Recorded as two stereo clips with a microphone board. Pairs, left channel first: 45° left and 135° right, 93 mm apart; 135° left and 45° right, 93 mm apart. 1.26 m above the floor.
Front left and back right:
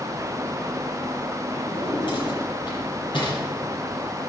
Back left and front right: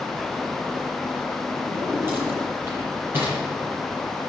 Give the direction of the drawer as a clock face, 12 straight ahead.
11 o'clock.